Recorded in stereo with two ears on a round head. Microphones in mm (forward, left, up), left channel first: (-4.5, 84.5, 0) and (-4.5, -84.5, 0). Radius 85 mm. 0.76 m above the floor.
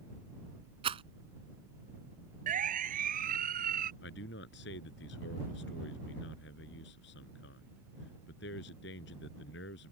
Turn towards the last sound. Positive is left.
turn(degrees=65)  # may be behind; listen again after turning